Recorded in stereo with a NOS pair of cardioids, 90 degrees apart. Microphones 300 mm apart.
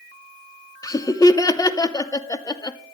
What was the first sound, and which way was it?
Laughter, 10° left.